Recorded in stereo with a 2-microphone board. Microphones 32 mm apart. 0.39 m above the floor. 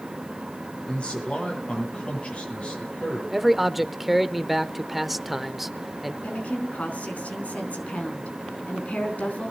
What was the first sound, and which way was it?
A man speaking, 40° left (ahead or behind).